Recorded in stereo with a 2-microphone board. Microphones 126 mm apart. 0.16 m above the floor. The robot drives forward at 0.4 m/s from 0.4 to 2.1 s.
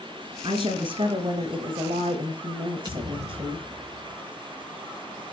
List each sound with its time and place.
0.4 s a woman speaking: 45° right (ahead or behind), 10 m; by 3.6 s 50° right (ahead or behind), 9.5 m
2.9 s a thud: 35° right (ahead or behind), 7 m